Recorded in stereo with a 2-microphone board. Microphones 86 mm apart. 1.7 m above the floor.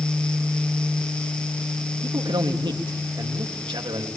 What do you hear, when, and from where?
2.0 s a man speaking: 75° right (ahead or behind), 3 m